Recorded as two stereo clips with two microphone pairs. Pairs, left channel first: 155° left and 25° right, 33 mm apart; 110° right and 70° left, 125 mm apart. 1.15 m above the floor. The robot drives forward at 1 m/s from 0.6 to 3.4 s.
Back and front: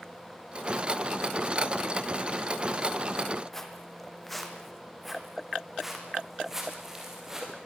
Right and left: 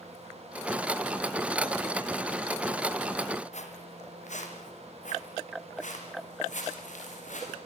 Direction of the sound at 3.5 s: 130° right.